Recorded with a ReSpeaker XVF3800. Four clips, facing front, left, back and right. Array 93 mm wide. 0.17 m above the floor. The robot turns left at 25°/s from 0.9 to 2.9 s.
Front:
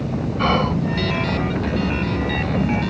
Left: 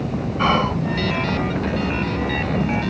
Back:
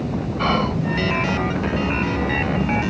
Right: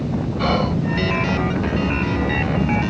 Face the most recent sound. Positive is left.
turn(degrees=35)